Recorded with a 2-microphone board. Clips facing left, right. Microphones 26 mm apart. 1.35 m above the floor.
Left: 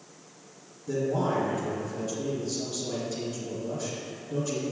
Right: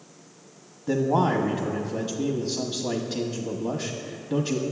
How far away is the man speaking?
About 1.1 m.